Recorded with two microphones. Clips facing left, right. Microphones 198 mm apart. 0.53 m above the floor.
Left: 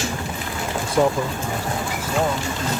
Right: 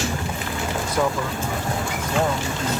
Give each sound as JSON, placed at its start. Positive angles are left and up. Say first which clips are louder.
{"t": 0.8, "sound": "a man speaking", "louder": "left 5 dB", "side_deg": 35}